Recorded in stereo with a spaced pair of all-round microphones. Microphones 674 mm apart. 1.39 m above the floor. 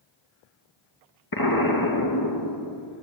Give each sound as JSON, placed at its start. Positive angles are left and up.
{"t": 1.3, "sound": "an explosion", "side_deg": 30, "distance_m": 2.0}